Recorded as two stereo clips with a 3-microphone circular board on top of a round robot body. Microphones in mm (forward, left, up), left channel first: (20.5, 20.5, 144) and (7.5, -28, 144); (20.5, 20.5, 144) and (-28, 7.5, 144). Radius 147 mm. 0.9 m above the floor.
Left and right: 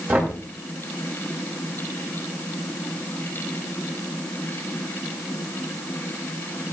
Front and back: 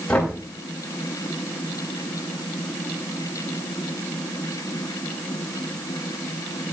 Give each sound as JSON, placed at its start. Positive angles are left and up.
{"t": 0.1, "sound": "knocking", "azimuth_deg": -55, "distance_m": 7.0}